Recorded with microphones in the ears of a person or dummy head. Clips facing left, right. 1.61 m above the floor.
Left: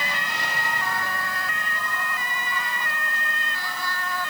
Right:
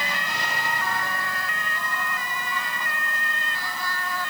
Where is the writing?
No writing in this recording.